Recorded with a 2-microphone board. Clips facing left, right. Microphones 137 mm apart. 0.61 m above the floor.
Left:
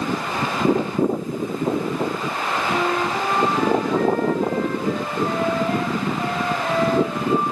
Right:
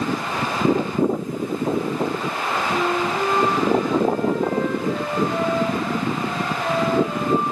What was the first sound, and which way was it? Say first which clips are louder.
A flute: even; 70° left (ahead or behind).